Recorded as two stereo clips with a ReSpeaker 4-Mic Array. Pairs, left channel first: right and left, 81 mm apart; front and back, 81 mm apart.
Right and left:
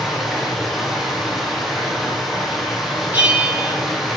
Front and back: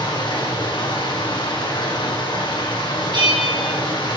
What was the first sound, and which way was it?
Running water, 5° left.